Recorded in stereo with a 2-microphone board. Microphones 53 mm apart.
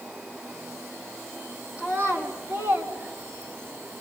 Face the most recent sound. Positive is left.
turn(degrees=-55)  # may be behind; listen again after turning